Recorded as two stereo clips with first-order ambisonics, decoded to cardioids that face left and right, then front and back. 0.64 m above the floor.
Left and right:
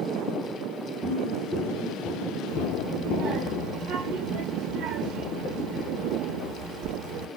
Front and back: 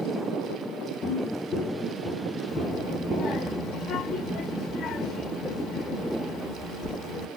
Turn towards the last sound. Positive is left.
turn(degrees=-55)